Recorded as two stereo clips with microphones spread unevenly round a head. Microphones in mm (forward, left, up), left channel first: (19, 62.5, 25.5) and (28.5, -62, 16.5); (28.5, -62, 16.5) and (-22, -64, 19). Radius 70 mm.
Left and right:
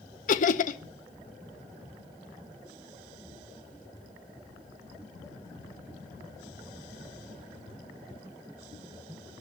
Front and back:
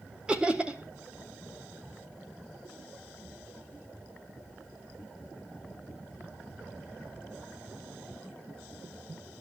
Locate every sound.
0.3 s laughter: 105° left, 0.8 m